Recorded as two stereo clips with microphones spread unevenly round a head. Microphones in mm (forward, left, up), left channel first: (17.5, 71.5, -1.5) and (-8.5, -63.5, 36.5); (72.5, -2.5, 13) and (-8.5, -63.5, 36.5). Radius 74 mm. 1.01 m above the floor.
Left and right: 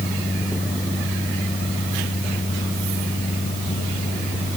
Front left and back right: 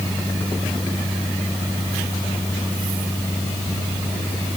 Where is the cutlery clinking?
I don't hear cutlery clinking.